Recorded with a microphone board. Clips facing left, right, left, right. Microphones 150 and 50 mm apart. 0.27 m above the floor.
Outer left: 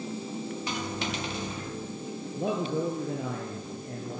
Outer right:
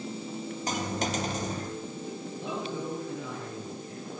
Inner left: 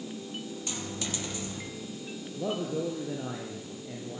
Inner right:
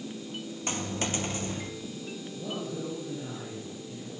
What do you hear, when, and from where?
0.7 s a dropped coin: 40° right (ahead or behind), 3 m
2.3 s a man speaking: 50° left (ahead or behind), 5 m